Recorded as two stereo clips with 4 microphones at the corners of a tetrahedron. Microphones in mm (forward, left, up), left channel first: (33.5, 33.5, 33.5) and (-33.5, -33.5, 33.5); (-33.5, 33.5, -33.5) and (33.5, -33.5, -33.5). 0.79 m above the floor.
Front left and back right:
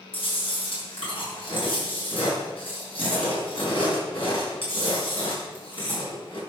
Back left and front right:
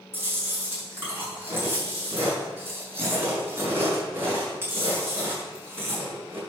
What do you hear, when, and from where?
0.1 s chewing: 20° left, 5.5 m